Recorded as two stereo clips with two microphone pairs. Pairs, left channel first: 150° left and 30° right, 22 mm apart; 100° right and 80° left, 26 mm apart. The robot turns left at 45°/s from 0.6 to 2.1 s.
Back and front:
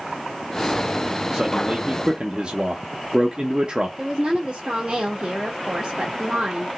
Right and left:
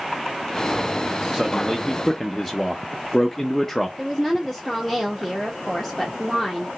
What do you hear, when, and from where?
1.3 s a man speaking: 15° left, 0.6 m; by 3.9 s 20° right, 0.6 m
4.0 s a woman speaking: 15° right, 1.0 m